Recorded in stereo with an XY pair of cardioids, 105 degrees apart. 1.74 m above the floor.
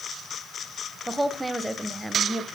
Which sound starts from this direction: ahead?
A woman speaking, at 1.1 s.